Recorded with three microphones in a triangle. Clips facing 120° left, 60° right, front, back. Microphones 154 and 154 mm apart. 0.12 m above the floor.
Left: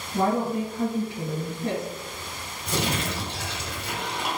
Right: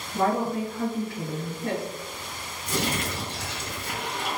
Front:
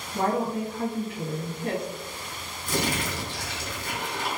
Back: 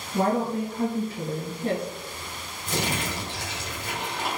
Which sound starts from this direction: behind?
A woman speaking, at 0.1 s.